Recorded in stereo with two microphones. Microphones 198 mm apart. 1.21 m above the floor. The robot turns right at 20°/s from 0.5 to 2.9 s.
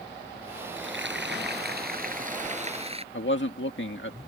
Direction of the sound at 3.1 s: 70° left (ahead or behind).